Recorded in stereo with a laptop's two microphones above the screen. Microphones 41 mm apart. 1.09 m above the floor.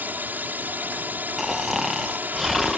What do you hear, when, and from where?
0.0 s a drone: 50° right (ahead or behind)
1.4 s snoring: 5° right (ahead or behind)